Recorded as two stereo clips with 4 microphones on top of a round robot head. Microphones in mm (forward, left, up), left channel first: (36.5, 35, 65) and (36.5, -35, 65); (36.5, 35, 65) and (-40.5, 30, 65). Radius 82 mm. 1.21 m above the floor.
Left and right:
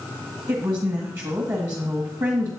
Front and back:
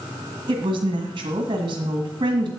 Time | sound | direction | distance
0.5 | a woman speaking | 140° right | 1.6 m